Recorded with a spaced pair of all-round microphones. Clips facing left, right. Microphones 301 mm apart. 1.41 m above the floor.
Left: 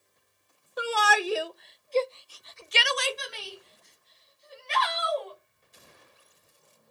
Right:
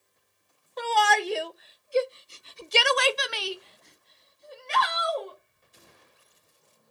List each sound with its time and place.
0.8 s a shout: 10° left (ahead or behind), 1.1 m; by 6.9 s 45° right (ahead or behind), 2 m